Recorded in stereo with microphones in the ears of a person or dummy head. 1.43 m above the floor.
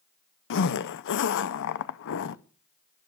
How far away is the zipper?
About 0.6 m.